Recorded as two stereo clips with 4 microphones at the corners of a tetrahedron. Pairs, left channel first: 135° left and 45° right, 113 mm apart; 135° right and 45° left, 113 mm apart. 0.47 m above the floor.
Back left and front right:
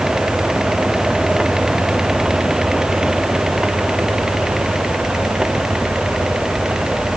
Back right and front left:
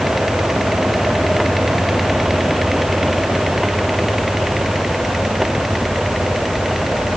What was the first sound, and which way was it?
Only background noise.